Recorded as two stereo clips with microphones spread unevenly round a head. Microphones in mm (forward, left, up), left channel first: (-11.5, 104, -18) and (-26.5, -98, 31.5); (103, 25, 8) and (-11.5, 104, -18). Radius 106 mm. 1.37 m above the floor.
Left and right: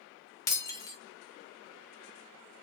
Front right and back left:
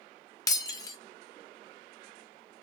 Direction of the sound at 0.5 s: Straight ahead.